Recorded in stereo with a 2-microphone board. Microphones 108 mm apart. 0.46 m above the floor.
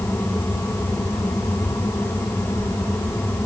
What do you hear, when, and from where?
Only background noise.